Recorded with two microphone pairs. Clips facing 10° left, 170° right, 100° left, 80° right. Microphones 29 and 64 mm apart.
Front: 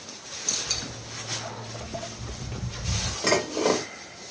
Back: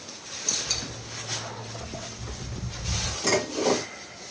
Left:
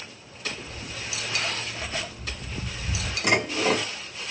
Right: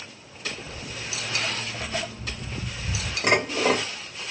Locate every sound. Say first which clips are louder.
0.7 s footsteps: even, right 1 dB; 80° right, 1.4 m; by 3.1 s 10° left, 0.8 m
3.2 s dishes clattering: front 1 dB, right 2 dB; 40° right, 1.4 m